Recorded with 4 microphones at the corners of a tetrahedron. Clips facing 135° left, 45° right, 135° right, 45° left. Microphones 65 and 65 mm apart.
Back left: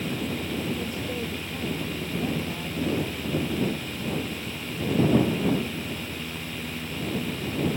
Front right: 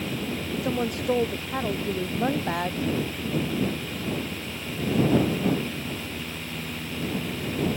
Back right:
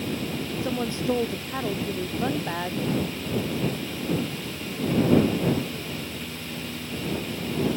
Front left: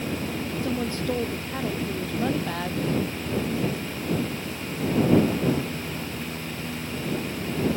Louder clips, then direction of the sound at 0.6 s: Front right 5 dB, back right 1 dB; 65° right.